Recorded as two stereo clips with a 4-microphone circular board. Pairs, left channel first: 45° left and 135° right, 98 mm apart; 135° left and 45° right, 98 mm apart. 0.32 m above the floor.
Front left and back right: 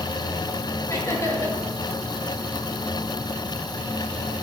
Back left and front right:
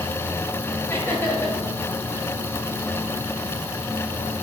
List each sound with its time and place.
0.9 s laughter: 85° left, 1.8 m